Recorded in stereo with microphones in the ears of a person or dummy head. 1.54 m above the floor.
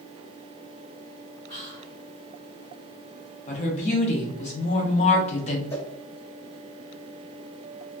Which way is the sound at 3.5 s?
35° left (ahead or behind).